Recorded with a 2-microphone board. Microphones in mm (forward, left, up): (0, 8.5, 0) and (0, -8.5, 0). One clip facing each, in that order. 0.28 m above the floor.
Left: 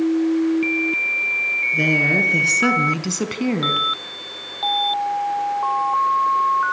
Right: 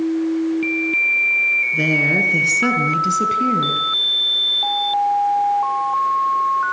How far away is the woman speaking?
About 4 m.